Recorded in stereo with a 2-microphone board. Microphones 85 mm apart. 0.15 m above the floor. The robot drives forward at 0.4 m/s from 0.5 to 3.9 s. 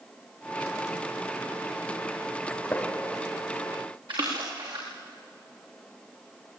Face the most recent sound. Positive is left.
turn(degrees=-65)  # may be behind; listen again after turning